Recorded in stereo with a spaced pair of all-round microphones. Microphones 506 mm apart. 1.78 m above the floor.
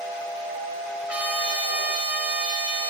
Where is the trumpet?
5° right (ahead or behind), 1.0 m.